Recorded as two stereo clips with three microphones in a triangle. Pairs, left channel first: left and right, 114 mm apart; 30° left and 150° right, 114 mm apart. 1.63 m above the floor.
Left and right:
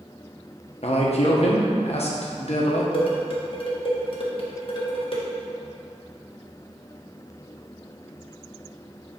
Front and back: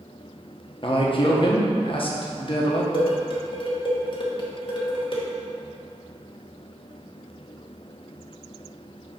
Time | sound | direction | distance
0.8 | a man speaking | 65° left | 1.1 m
2.9 | dishes clattering | 60° left | 1.1 m